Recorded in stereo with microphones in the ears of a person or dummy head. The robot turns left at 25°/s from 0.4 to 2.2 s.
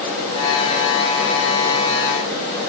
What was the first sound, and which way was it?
Only background noise.